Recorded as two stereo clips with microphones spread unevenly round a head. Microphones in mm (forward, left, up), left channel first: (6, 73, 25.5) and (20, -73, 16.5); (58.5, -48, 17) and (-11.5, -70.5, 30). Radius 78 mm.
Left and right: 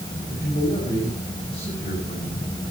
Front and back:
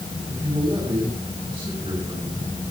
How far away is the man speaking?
About 8 m.